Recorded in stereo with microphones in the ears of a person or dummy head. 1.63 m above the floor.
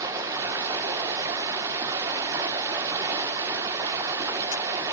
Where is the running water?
15° right (ahead or behind), 1.2 m.